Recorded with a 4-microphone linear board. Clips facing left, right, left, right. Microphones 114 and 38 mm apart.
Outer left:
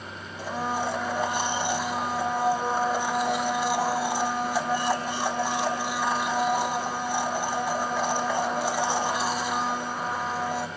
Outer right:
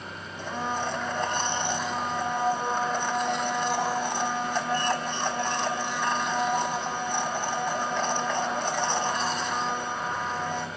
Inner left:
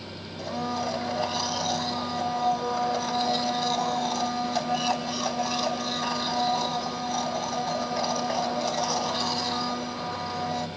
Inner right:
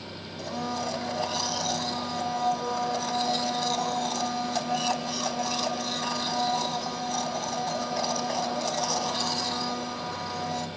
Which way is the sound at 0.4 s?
10° left (ahead or behind).